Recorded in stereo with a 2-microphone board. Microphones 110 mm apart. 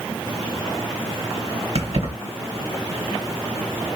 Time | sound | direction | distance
1.8 | keys jangling | 65° right (ahead or behind) | 2.5 m